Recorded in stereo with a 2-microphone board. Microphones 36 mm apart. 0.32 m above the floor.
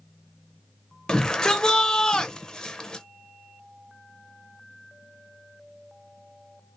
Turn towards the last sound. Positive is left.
turn(degrees=25)  # may be behind; listen again after turning